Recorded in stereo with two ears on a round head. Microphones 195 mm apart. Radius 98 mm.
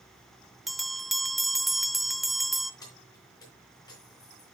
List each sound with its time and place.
0.7 s a bell: centre (ahead or behind), 0.5 m
2.8 s keys jangling: 20° left (ahead or behind), 4 m